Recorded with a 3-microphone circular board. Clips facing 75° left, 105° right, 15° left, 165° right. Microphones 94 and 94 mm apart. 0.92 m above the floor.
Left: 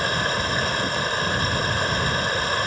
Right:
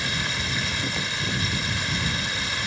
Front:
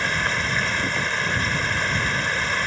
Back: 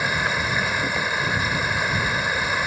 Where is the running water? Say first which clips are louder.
Left 6 dB, back 1 dB; 115° left.